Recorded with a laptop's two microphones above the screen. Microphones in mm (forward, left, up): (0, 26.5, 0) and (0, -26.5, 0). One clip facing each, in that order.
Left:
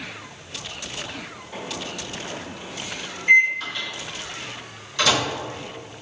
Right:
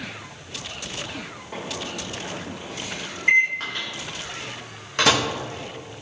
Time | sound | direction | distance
1.5 | a microwave | 50° right (ahead or behind) | 1.3 m
3.6 | a microwave | 50° right (ahead or behind) | 0.8 m